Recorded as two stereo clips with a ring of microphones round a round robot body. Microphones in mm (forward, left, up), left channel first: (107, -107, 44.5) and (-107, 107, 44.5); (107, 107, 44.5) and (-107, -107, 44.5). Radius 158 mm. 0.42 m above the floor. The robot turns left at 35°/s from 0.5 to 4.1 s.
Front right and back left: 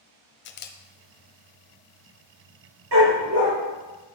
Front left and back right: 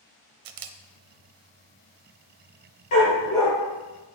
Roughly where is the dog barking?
Left.